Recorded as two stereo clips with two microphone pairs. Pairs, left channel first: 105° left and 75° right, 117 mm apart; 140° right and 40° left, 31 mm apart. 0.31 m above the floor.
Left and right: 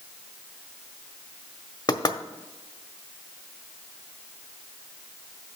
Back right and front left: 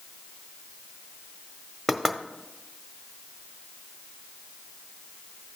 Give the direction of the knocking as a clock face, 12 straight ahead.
8 o'clock.